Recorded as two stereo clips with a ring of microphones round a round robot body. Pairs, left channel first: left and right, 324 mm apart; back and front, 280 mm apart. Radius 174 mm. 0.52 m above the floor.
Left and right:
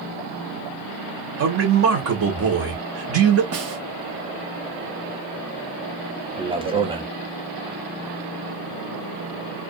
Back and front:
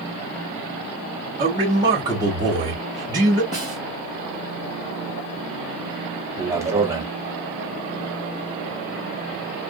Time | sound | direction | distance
1.4 | a man speaking | 70° right | 1.2 m
3.5 | a snare drum | 120° right | 0.9 m
6.4 | a man speaking | 55° right | 0.7 m